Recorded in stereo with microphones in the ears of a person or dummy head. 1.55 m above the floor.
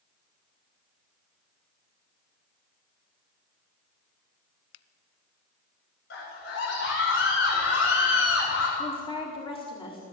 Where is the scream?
75° left (ahead or behind), 7.5 m.